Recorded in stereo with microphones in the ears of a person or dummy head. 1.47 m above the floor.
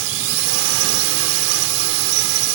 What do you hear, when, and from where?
0.0 s a drone: 80° right